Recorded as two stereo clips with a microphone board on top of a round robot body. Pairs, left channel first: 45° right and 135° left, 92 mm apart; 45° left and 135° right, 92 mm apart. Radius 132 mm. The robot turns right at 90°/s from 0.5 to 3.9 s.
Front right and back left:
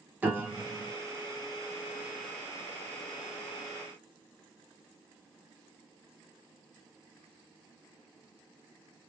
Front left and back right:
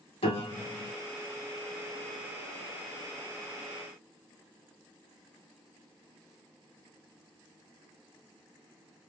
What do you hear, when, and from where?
0.2 s a piano: 65° left, 1.0 m; by 0.9 s 100° left, 1.0 m